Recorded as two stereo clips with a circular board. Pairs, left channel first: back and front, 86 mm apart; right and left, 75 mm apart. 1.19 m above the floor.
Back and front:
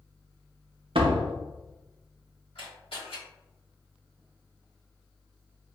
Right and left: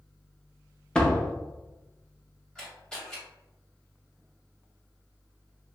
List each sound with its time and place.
0.9 s a door slam: 10° right, 0.5 m
2.5 s a camera shutter: 175° right, 1.7 m